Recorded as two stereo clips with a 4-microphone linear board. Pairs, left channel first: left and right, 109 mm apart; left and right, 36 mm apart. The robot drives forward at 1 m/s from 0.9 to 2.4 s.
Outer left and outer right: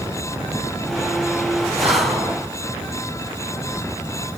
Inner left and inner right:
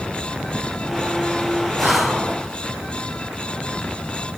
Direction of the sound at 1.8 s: 65° right (ahead or behind).